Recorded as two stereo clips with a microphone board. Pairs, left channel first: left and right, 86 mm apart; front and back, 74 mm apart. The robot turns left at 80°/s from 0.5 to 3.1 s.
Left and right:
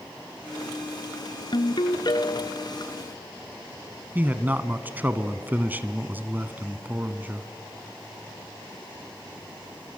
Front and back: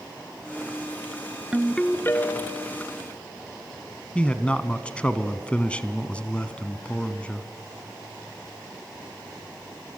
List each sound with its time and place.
1.5 s a ringtone: 105° left, 1.2 m; by 2.7 s 10° left, 1.2 m
4.2 s a man speaking: 55° right, 1.0 m